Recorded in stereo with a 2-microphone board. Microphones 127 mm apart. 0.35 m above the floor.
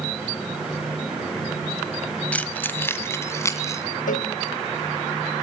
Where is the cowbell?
80° left, 0.7 m.